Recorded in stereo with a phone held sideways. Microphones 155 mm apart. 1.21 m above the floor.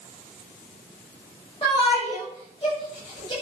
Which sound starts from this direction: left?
A shout, at 1.6 s.